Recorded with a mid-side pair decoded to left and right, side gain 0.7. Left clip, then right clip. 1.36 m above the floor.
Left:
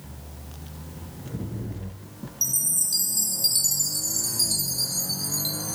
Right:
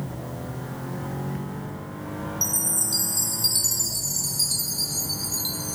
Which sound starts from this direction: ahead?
A chime, at 2.4 s.